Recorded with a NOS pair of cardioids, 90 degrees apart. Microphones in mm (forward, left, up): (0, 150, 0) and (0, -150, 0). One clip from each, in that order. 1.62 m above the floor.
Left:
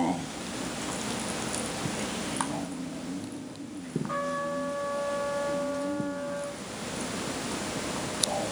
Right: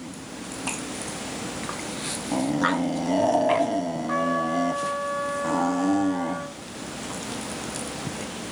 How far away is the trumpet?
About 2.5 m.